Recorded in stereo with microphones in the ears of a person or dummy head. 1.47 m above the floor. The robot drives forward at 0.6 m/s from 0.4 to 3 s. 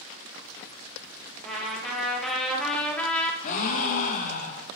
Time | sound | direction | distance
1.4 | a trumpet | centre (ahead or behind) | 1.7 m
3.4 | a gasp | 45° left (ahead or behind) | 1.1 m